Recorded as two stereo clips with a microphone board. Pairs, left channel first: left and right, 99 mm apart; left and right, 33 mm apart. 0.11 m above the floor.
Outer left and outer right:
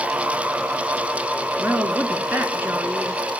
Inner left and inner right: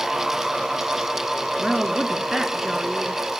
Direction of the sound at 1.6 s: 20° right (ahead or behind).